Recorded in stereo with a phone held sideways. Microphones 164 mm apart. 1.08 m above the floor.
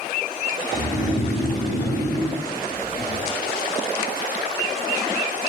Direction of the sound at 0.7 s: 55° left (ahead or behind).